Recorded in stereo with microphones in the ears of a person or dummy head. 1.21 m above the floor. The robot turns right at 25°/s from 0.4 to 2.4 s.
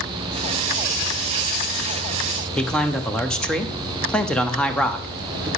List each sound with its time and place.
2.6 s a man speaking: centre (ahead or behind), 0.7 m